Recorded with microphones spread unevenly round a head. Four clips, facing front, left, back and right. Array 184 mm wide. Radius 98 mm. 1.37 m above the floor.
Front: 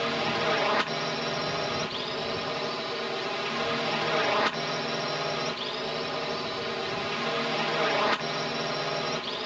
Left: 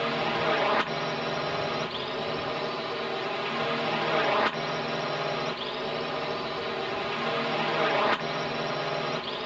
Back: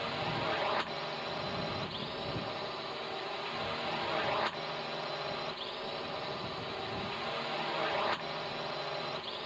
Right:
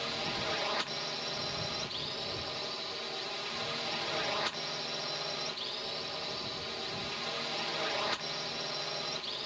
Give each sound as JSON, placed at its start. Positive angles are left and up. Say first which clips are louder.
{"t": 0.0, "sound": "a drone", "louder": "left 10 dB, front 7 dB", "azimuth_deg": 45}